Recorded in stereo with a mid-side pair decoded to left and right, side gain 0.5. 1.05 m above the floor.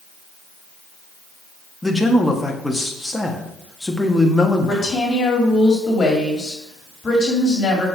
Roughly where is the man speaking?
Ahead.